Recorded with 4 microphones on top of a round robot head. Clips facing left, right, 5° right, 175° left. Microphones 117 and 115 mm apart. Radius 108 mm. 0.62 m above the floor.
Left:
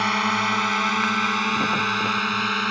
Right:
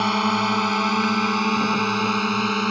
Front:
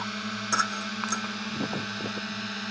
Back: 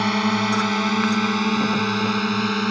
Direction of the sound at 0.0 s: 155° right.